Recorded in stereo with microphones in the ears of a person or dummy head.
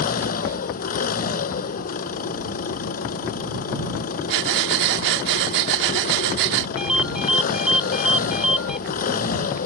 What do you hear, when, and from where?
0.0 s an engine running: 45° left (ahead or behind)
4.3 s breathing: 65° right (ahead or behind)
6.8 s a ringtone: centre (ahead or behind)